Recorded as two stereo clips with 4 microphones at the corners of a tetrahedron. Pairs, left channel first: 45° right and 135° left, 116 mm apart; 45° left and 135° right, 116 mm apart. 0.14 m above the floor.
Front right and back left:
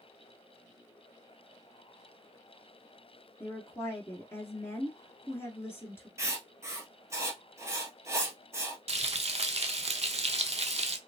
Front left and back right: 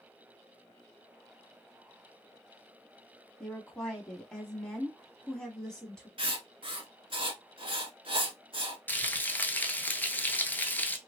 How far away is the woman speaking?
About 1.1 m.